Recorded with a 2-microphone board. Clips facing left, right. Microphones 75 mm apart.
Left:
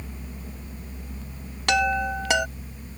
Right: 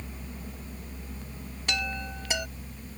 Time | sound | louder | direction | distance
1.7 | a chime | left 12 dB | 75° left (ahead or behind) | ?